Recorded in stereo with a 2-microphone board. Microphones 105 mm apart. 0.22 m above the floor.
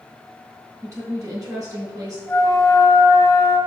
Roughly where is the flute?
Left.